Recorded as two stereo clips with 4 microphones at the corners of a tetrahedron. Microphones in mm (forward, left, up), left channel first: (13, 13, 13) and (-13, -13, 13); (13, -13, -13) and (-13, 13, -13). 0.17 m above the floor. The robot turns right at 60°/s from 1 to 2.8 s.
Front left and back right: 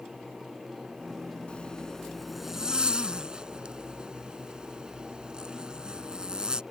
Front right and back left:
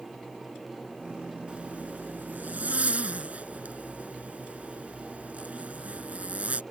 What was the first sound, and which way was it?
A zipper, 85° left.